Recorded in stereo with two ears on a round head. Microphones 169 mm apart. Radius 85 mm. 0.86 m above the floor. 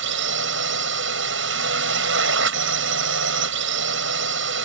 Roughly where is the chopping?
I don't hear chopping.